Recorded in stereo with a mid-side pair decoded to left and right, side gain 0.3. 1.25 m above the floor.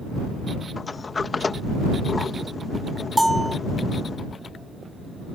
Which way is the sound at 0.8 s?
45° left.